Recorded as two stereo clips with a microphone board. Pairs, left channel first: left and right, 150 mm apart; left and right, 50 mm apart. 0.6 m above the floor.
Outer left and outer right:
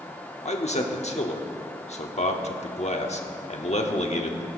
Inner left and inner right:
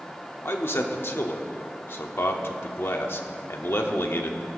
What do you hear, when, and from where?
0.5 s a man speaking: 50° left (ahead or behind), 1.1 m